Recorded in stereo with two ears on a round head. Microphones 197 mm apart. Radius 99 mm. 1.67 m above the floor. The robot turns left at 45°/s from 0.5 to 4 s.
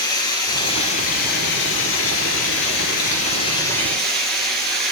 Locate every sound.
0.0 s running water: 160° left, 3.5 m; by 4.9 s straight ahead, 3.5 m